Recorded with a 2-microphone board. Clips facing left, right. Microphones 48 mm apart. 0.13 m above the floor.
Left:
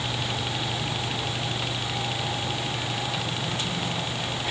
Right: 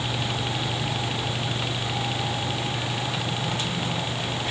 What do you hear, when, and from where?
Only background noise.